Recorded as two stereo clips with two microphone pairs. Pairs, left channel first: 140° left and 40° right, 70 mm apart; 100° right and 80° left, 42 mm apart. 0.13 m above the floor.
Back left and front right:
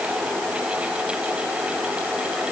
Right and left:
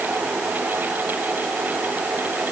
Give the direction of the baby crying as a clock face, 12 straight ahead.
No baby crying in this recording.